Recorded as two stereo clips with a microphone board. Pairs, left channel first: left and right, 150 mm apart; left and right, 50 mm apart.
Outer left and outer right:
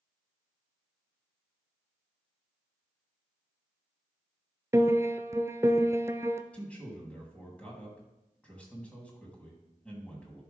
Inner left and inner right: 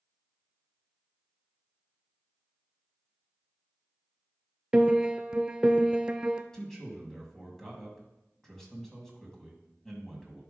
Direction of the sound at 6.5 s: 10° left (ahead or behind).